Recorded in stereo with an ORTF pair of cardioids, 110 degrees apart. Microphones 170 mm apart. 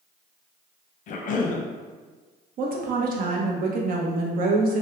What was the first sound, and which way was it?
A cough, 50° left.